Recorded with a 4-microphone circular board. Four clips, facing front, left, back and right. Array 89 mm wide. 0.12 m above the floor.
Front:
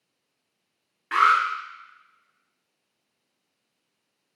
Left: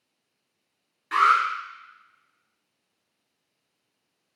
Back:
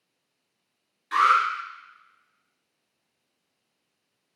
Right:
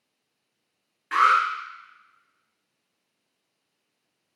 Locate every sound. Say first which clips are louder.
1.1 s an alarm: even, front 1 dB; 15° right, 1.6 m